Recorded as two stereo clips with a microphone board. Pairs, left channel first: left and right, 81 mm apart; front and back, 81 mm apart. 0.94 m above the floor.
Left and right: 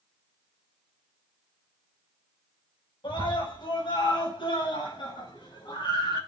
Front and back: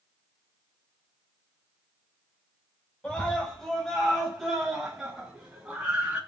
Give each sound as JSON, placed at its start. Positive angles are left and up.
{"t": 3.0, "sound": "a scream", "azimuth_deg": 80, "distance_m": 5.0}